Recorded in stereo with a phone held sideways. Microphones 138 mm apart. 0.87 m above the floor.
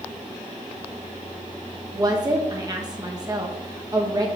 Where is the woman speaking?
30° right (ahead or behind), 1.0 m.